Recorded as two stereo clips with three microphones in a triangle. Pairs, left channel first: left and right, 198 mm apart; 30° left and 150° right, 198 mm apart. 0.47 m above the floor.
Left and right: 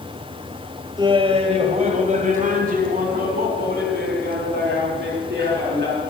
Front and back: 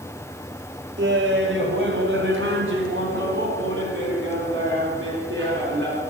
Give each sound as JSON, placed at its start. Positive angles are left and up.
{"t": 1.0, "sound": "laughter", "azimuth_deg": -155, "distance_m": 2.0}